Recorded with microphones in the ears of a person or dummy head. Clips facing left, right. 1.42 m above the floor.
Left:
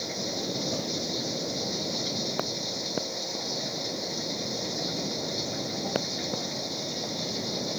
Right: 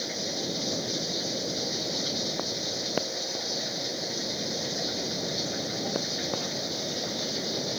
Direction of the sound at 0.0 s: 10° right (ahead or behind).